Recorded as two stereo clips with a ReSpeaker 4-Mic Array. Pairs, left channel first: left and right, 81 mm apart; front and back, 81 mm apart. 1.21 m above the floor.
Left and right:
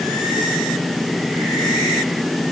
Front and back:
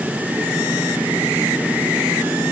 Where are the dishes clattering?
No dishes clattering in this recording.